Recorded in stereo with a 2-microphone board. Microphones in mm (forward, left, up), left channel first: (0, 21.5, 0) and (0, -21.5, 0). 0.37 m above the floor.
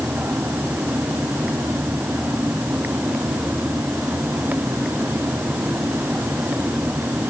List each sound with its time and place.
Only background noise.